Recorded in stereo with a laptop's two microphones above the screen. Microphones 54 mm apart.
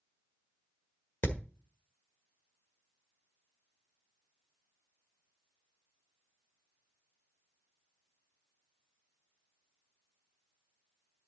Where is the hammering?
50° left (ahead or behind), 1.4 m.